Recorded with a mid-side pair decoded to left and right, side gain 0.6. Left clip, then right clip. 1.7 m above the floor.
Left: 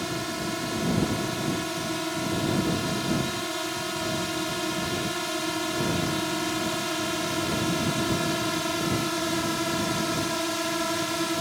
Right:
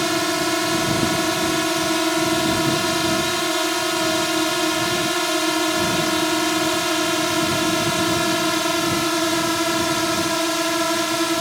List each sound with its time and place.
0.0 s a drone: 50° right; by 11.4 s 35° right